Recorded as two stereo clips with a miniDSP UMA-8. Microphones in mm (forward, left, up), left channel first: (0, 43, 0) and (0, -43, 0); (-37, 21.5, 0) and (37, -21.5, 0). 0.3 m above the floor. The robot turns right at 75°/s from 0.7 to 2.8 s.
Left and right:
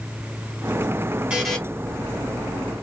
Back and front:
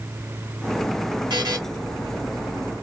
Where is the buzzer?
15° right, 2 m; by 1.6 s 5° left, 2 m.